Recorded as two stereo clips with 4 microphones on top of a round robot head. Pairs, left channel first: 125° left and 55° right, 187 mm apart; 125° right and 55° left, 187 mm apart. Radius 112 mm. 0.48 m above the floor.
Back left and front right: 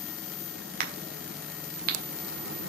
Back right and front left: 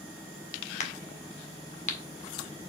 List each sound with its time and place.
0.8 s a crack: 85° right, 1.7 m